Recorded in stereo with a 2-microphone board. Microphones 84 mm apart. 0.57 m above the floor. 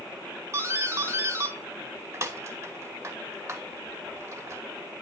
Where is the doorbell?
30° right (ahead or behind), 1.9 m.